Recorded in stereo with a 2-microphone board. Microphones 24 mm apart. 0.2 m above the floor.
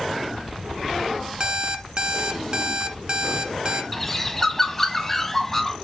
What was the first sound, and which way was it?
An alarm clock, 35° right (ahead or behind).